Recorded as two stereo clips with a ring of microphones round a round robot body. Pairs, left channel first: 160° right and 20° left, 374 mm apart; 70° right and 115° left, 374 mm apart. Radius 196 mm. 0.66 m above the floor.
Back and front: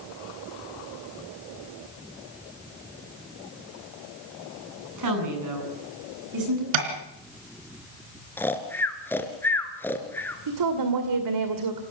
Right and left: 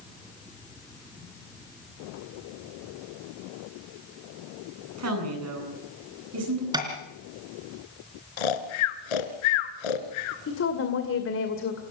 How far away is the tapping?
About 3.5 m.